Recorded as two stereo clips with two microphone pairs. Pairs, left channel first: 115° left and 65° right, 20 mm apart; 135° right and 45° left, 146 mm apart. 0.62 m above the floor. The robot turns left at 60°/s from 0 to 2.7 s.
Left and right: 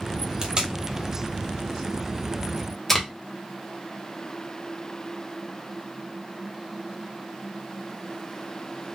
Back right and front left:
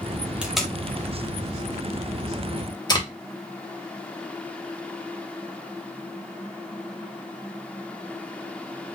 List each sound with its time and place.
0.4 s tape being pulled: 35° right, 1.1 m; by 3.1 s 175° right, 1.1 m